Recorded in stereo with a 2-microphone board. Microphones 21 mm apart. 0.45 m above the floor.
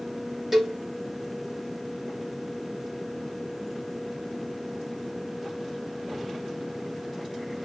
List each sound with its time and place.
0.5 s a cowbell: 10° right (ahead or behind), 1.6 m